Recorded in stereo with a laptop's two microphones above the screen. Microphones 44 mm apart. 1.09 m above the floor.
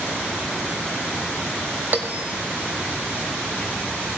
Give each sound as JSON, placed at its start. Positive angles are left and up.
{"t": 1.9, "sound": "a bell", "side_deg": -45, "distance_m": 0.7}